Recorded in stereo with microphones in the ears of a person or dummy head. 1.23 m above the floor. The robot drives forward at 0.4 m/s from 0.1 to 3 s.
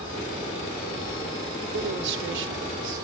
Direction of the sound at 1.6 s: 60° right (ahead or behind).